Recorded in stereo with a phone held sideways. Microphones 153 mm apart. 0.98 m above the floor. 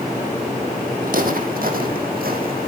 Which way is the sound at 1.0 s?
65° right (ahead or behind).